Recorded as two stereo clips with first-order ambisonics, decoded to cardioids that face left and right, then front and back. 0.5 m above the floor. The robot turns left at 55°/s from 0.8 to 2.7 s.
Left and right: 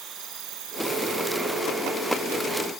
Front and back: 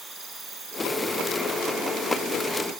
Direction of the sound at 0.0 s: 110° right.